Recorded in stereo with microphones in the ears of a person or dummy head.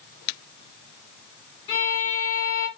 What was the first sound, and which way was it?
A violin, 20° left (ahead or behind).